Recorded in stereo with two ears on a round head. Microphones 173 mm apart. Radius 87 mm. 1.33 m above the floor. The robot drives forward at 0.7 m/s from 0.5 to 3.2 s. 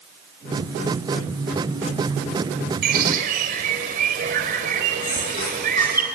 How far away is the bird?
About 2.5 m.